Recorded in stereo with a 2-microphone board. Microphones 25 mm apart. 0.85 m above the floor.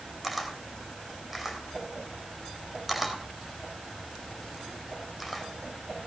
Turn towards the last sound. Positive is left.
turn(degrees=0)  # may be behind; listen again after turning